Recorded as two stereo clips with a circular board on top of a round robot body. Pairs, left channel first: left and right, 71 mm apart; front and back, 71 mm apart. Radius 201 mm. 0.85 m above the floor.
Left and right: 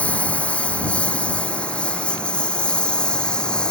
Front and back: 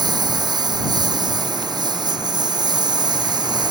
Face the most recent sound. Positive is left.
turn(degrees=165)